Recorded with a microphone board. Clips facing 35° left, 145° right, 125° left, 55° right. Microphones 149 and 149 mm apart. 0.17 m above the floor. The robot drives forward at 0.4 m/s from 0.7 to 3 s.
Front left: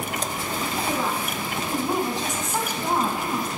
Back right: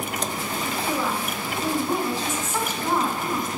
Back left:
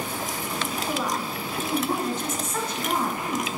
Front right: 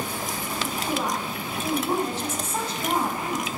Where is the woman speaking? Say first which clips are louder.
Even, front right 1 dB; 15° right, 2 m; by 3.5 s 35° right, 1.7 m.